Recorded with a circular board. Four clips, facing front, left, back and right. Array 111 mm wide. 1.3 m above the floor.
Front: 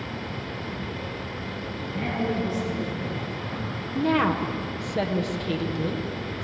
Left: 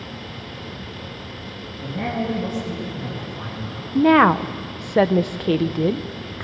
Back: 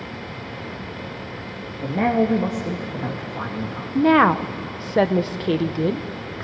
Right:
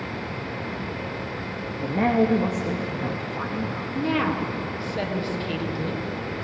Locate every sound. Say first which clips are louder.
1.8 s a man speaking: right 5 dB, back 9 dB; 150° right, 2.5 m
4.0 s a woman speaking: left 11 dB, back 7 dB; 125° left, 0.8 m